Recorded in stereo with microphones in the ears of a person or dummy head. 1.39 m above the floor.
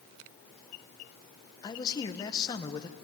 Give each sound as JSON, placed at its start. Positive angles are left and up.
{"t": 1.6, "sound": "a man speaking", "side_deg": 20, "distance_m": 1.3}